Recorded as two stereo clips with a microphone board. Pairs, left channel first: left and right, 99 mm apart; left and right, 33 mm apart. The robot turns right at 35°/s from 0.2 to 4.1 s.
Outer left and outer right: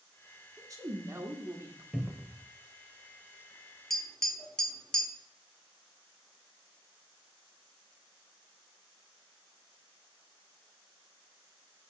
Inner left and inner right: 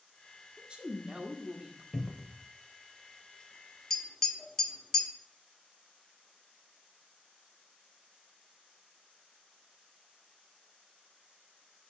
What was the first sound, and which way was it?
A woman speaking, 90° right.